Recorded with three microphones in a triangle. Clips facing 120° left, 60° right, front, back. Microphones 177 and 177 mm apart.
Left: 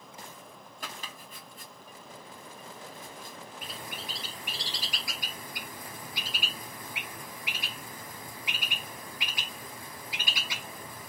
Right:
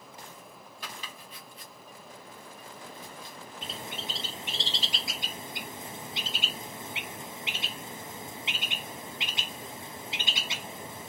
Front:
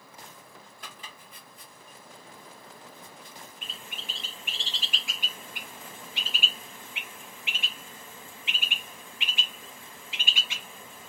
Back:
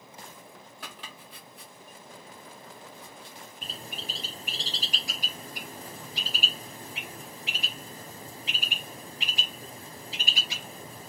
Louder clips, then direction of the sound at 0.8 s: Left 1 dB, back 3 dB; 165° left.